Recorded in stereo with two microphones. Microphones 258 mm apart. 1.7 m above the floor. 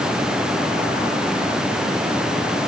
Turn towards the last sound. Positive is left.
No sound to turn to.